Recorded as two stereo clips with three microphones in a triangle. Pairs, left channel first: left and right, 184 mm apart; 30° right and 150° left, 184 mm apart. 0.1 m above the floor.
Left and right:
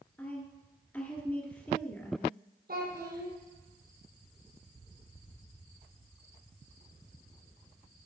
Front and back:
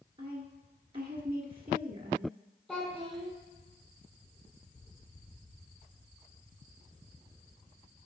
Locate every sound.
0.2 s a woman speaking: 155° left, 1.3 m
2.7 s a child speaking: 115° right, 2.5 m